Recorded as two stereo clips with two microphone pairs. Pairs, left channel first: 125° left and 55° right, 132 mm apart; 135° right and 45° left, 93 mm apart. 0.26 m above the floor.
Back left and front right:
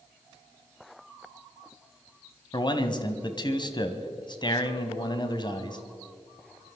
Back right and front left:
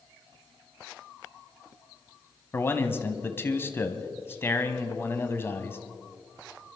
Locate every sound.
2.5 s a man speaking: 165° left, 1.4 m